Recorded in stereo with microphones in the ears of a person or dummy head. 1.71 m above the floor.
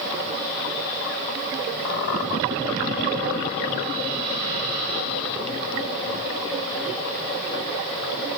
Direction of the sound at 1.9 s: 40° left (ahead or behind).